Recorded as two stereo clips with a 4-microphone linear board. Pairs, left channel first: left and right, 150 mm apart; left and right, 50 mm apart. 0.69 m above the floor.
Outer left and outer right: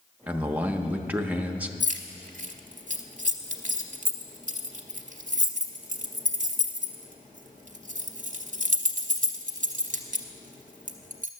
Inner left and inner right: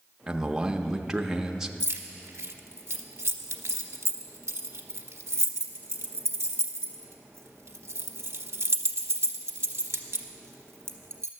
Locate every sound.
0.3 s a man speaking: 10° right (ahead or behind), 0.6 m
1.8 s keys jangling: 55° right (ahead or behind), 0.8 m